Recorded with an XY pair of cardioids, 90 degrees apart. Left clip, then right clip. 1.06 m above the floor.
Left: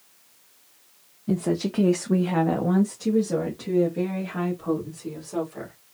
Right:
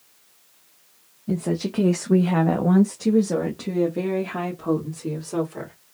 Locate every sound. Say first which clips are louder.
1.3 s a woman speaking: left 1 dB; 15° left, 0.9 m; by 5.7 s 60° right, 3 m